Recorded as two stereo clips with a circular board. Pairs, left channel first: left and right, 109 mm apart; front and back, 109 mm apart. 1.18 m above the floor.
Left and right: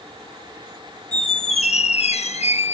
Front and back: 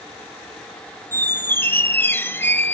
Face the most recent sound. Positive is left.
turn(degrees=70)